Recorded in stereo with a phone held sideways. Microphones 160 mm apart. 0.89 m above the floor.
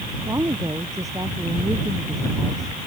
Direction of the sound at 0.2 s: 20° right (ahead or behind).